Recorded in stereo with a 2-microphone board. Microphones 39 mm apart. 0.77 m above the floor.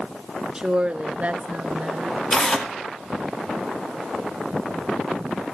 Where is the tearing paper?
15° left (ahead or behind), 1.8 m.